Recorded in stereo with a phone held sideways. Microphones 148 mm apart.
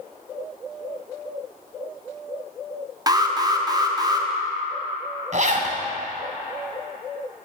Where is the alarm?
25° right (ahead or behind), 0.5 m.